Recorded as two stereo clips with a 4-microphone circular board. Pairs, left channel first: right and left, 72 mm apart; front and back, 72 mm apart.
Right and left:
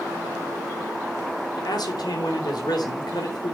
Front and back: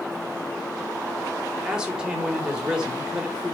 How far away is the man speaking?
About 4 m.